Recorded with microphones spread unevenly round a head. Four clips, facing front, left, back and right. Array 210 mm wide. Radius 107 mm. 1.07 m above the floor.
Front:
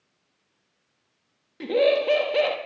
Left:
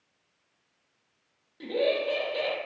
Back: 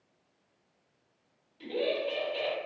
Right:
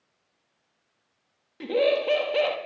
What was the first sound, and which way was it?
Laughter, 25° right.